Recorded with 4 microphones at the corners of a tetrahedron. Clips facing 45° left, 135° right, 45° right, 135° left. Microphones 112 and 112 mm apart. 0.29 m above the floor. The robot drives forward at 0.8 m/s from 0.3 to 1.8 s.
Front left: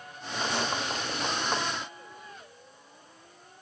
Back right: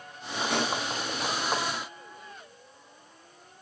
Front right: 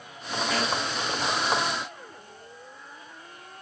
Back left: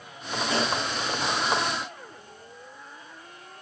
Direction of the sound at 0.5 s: 165° right.